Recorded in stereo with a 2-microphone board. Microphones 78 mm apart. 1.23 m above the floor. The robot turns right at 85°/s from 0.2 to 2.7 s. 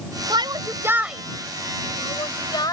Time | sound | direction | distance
0.3 | a shout | 80° right | ?